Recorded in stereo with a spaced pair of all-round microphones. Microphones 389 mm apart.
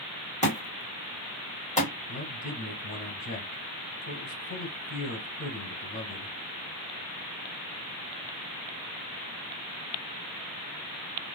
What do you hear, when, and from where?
0.4 s a thud: 15° left (ahead or behind), 1.5 m
2.1 s a man speaking: 20° left (ahead or behind), 1.8 m